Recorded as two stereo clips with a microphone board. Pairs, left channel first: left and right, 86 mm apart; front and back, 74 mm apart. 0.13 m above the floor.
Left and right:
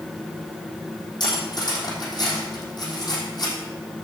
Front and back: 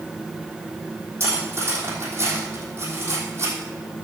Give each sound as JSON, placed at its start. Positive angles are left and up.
{"t": 1.2, "sound": "cutlery clinking", "azimuth_deg": 125, "distance_m": 3.0}